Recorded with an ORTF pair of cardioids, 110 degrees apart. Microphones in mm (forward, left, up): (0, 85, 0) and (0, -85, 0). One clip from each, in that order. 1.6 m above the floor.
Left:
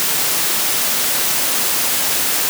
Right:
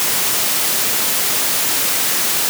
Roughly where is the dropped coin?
No dropped coin in this recording.